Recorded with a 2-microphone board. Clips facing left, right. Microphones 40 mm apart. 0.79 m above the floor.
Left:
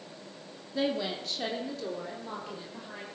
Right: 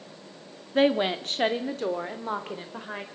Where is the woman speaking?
50° right (ahead or behind), 2.0 m.